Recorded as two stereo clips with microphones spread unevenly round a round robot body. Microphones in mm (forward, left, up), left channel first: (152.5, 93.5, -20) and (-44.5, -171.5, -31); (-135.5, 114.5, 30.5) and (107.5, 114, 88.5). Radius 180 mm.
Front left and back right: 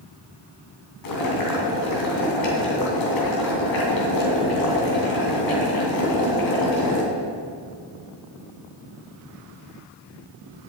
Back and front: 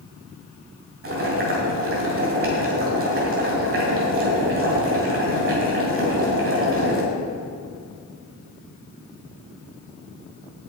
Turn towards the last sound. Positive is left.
turn(degrees=35)